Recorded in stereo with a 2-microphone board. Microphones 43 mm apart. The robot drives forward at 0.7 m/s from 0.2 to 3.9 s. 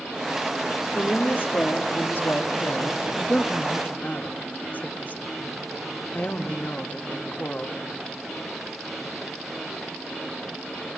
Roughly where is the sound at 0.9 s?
Left.